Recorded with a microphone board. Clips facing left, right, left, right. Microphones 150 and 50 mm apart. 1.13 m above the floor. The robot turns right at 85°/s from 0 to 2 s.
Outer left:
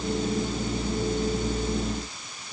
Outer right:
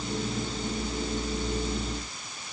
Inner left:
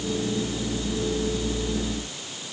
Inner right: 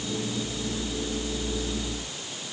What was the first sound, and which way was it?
Only background noise.